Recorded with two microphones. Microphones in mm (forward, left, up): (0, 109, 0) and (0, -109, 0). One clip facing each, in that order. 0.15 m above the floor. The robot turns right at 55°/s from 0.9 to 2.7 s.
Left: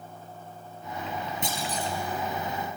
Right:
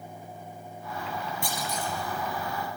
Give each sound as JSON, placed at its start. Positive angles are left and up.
{"t": 1.4, "sound": "a clunk", "side_deg": 20, "distance_m": 2.5}